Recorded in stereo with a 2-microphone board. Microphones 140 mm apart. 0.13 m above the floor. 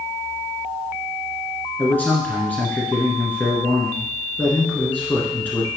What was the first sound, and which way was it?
A man speaking, 15° left (ahead or behind).